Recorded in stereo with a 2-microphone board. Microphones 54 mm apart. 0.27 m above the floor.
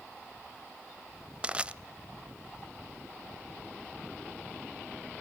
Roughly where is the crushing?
Centre.